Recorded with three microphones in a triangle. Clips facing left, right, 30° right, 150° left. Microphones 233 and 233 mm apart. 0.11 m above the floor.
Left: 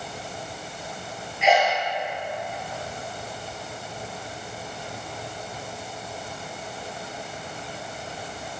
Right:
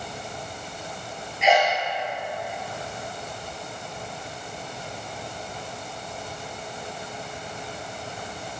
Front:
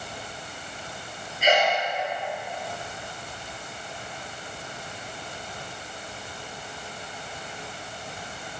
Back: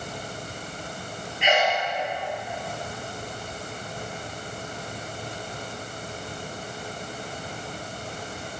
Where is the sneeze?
Straight ahead, 2 m.